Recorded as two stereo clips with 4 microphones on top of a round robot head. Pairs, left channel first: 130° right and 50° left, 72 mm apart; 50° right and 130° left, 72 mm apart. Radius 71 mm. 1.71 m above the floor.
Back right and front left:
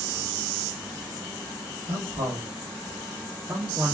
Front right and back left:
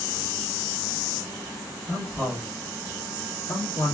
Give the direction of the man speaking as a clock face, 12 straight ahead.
11 o'clock.